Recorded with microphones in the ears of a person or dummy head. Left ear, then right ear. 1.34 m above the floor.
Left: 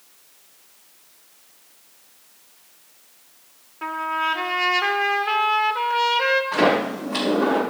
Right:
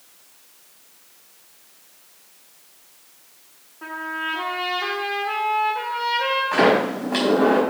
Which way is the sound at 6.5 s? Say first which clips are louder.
Right 2 dB; 20° right (ahead or behind).